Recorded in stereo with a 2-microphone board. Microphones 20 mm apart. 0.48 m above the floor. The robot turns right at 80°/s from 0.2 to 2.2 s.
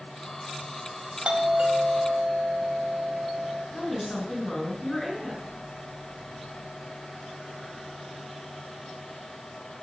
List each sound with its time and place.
1.2 s a doorbell: 110° right, 4 m; by 3.6 s 35° right, 4 m
3.7 s a woman speaking: 15° left (ahead or behind), 6.5 m